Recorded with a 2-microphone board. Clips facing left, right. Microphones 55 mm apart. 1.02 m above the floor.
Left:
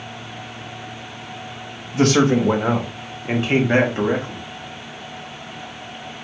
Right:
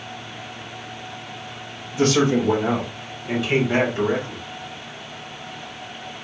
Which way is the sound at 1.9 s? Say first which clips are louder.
Left 2 dB; 70° left (ahead or behind).